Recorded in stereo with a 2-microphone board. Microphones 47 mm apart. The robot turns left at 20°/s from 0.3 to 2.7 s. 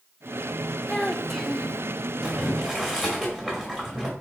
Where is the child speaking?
5° left (ahead or behind), 0.5 m; by 1.8 s centre (ahead or behind), 0.5 m.